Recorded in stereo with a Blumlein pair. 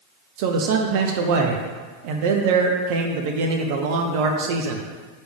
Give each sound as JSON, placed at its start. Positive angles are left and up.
{"t": 0.4, "sound": "a man speaking", "azimuth_deg": -50, "distance_m": 0.6}